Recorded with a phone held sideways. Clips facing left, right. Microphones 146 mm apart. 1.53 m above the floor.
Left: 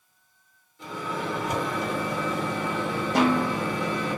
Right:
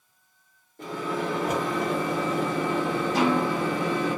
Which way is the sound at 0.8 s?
55° right (ahead or behind).